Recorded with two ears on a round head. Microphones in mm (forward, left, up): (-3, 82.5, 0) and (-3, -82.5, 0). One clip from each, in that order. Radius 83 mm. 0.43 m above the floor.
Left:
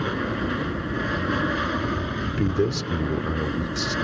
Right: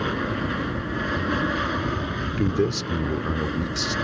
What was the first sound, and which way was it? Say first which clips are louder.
An aircraft: even; 5° right (ahead or behind).